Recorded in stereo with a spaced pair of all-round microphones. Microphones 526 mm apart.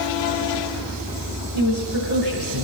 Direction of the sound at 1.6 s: 55° left (ahead or behind).